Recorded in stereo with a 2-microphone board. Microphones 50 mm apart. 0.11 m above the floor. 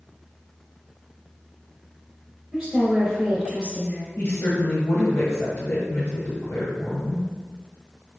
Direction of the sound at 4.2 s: 40° left (ahead or behind).